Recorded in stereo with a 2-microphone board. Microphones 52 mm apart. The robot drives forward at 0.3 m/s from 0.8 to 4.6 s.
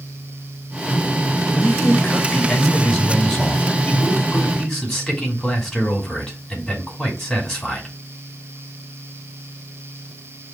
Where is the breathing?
No breathing in this recording.